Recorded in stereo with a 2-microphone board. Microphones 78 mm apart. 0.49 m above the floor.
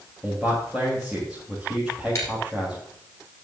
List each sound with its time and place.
0.2 s a man speaking: 10° right (ahead or behind), 3.5 m
2.1 s breaking glass: 35° left (ahead or behind), 7 m